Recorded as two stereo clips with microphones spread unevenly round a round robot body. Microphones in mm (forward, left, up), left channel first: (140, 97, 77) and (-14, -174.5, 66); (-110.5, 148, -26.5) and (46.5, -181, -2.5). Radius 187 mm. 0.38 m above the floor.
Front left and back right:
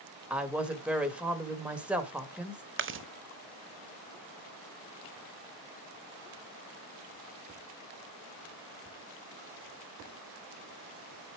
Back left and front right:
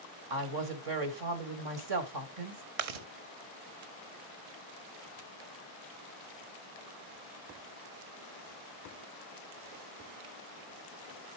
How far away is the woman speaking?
About 1.9 m.